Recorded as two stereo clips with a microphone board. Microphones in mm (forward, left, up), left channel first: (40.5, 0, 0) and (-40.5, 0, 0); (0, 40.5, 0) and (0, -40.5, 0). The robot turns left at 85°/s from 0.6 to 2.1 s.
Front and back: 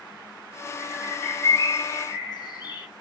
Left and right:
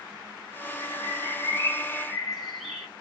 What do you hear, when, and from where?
0.8 s a bird: 110° left, 2.5 m; by 2.9 s straight ahead, 2.5 m